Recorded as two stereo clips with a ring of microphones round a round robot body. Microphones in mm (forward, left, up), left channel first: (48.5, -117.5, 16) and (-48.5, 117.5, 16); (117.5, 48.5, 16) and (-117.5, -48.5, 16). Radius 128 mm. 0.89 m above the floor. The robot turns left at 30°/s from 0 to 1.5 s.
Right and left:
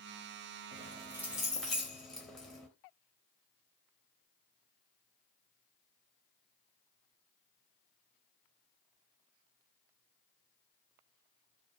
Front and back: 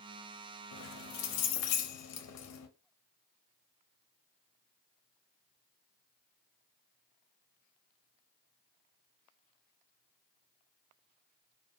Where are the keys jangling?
45° left, 0.6 m; by 2.7 s 20° left, 0.6 m.